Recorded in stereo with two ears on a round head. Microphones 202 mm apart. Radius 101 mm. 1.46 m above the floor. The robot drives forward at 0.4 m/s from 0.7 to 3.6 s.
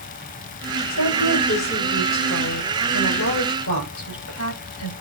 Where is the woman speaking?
90° left, 6 m; by 4.9 s 80° left, 6 m.